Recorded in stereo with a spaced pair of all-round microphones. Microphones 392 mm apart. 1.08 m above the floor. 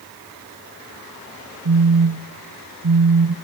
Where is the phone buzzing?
60° right (ahead or behind), 1.0 m.